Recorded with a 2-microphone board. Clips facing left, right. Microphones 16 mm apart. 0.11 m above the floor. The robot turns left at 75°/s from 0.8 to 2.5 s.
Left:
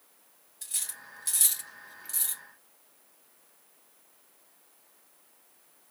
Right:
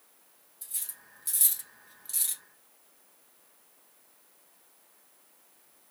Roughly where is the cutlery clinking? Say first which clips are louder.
Left 5 dB; left.